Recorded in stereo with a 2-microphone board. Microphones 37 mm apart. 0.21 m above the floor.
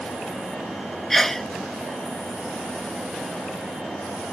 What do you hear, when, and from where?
1.1 s a sneeze: 10° left (ahead or behind)